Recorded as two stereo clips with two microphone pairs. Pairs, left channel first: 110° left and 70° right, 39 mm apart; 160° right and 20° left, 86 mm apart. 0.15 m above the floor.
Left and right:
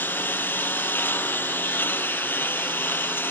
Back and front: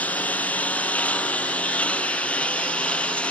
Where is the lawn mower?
130° left; by 3.3 s 125° left.